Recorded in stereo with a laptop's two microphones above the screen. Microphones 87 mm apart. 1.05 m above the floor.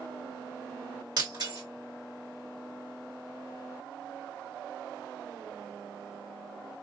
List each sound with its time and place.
1.2 s breaking glass: 55° right (ahead or behind), 2.5 m